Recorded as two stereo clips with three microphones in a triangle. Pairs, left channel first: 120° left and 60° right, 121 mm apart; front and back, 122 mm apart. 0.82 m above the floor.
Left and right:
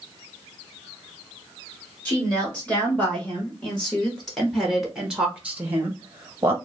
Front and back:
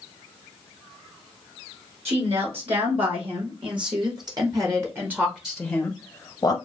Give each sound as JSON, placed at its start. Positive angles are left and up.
{"t": 2.0, "sound": "a woman speaking", "azimuth_deg": -165, "distance_m": 2.0}